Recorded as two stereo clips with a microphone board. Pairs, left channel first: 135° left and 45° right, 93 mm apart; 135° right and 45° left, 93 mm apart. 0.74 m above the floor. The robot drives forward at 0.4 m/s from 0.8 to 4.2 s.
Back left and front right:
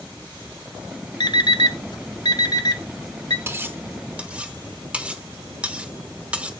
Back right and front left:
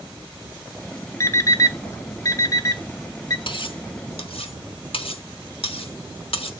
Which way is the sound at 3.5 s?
110° right.